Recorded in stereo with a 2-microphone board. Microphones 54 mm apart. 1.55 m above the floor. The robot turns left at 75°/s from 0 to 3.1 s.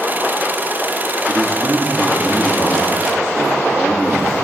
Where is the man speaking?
125° right, 2.5 m; by 4.4 s 95° left, 2.5 m.